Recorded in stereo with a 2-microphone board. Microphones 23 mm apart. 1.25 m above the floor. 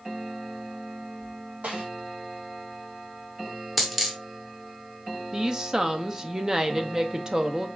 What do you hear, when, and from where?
1.6 s a snare drum: 80° right, 3 m
3.8 s a dropped coin: 10° right (ahead or behind), 0.9 m
5.3 s a woman speaking: 25° right (ahead or behind), 0.6 m